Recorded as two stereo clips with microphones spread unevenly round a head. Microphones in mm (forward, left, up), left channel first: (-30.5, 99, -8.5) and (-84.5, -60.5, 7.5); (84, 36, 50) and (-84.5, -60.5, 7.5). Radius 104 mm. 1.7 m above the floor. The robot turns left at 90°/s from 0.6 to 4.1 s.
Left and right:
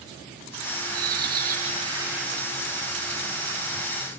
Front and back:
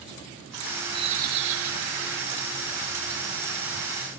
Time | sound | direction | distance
0.9 | a bird | 75° right | ?